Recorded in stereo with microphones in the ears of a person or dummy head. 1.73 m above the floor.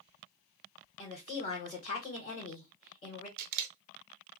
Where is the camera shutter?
50° right (ahead or behind), 0.6 m.